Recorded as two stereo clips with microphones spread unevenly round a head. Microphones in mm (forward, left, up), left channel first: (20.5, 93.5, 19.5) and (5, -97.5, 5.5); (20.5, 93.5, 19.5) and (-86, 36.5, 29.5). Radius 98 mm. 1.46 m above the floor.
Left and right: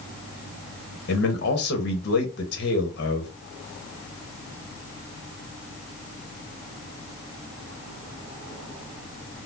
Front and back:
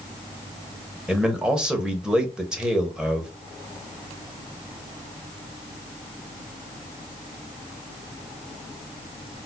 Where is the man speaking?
125° left, 1.0 m.